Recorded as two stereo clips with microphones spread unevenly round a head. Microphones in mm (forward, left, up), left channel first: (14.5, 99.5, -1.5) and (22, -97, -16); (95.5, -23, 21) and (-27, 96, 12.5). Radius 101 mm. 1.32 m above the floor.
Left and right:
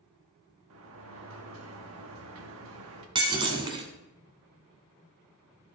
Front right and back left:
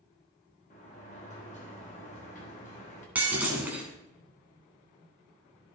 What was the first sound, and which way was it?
A sliding door, 100° right.